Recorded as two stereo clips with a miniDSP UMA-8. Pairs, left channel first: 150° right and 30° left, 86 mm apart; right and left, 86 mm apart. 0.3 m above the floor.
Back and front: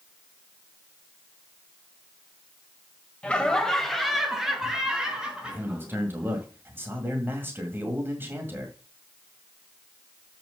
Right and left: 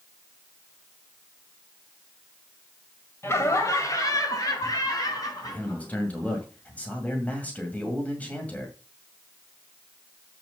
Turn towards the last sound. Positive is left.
turn(degrees=-25)